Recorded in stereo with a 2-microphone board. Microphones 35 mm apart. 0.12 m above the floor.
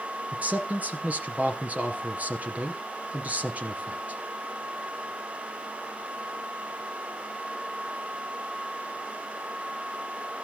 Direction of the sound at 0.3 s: 40° right (ahead or behind).